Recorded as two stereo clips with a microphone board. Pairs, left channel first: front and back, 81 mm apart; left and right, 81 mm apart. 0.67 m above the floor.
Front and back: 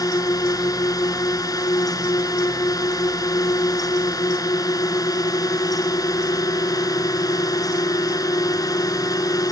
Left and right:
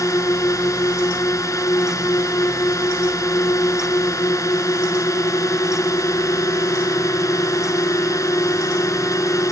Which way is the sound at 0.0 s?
40° left.